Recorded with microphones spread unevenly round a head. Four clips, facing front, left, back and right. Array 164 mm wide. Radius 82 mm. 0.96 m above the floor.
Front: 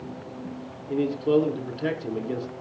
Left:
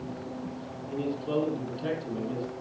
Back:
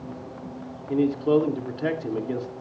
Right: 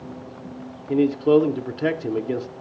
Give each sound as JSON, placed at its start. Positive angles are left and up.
{"t": 0.9, "sound": "a man speaking", "azimuth_deg": -85, "distance_m": 2.5}